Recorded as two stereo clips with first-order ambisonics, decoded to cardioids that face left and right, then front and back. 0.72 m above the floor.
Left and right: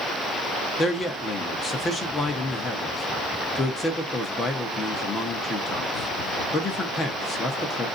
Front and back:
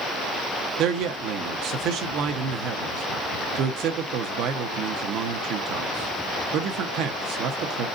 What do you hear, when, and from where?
0.8 s a man speaking: 160° left, 0.8 m